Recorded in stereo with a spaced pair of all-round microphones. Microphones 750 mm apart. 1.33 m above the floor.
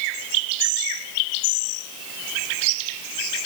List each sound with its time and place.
Only background noise.